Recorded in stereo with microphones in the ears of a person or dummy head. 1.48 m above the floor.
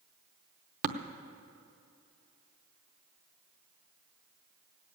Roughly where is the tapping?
Right.